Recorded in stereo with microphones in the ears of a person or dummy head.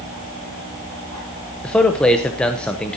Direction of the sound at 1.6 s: 5° left (ahead or behind).